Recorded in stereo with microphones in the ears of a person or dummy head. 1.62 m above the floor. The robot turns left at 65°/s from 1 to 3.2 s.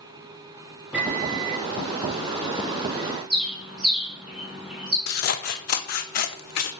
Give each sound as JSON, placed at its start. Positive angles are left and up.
{"t": 0.9, "sound": "a microwave", "azimuth_deg": -5, "distance_m": 1.0}
{"t": 3.3, "sound": "a bird", "side_deg": -5, "distance_m": 1.6}
{"t": 5.1, "sound": "scissors", "side_deg": 60, "distance_m": 0.6}